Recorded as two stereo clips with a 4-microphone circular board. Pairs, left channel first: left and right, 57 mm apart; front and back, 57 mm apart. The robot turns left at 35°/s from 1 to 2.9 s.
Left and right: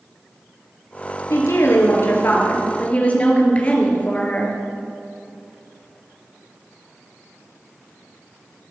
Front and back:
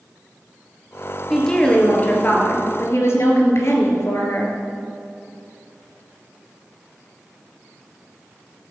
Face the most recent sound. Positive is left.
turn(degrees=30)